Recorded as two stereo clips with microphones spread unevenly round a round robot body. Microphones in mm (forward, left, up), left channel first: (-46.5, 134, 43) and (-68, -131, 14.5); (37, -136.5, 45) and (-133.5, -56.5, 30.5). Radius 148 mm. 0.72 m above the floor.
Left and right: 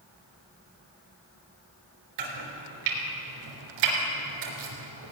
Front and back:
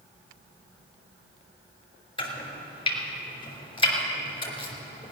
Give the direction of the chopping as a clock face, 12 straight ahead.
3 o'clock.